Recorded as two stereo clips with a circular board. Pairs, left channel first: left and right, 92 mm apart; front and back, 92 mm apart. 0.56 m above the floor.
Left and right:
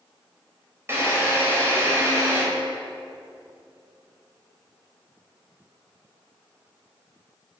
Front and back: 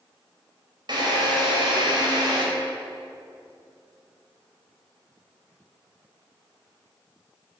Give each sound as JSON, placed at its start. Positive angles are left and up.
{"t": 0.9, "sound": "a drill", "azimuth_deg": -150, "distance_m": 3.0}